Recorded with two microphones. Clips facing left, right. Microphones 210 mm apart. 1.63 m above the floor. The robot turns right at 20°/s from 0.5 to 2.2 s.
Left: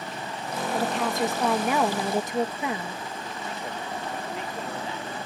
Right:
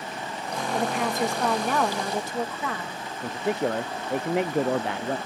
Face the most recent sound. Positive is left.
turn(degrees=-75)  # may be behind; listen again after turning